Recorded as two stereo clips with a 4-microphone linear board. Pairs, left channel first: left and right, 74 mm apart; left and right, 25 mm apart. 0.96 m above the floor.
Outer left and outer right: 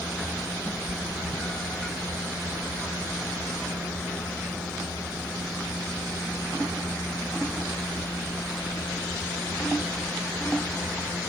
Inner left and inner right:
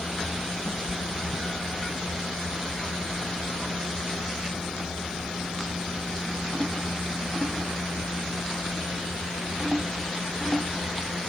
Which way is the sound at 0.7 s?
30° left (ahead or behind).